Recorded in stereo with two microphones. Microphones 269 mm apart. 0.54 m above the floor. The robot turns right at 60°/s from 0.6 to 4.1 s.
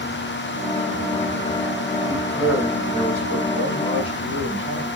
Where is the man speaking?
165° left, 3 m; by 4.9 s 75° right, 3 m.